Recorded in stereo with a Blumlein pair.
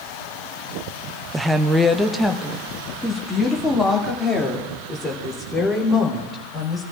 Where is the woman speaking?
10° right, 0.5 m; by 6.8 s 5° left, 4 m.